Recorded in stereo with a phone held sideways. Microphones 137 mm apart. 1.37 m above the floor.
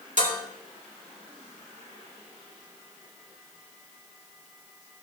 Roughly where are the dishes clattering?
Right.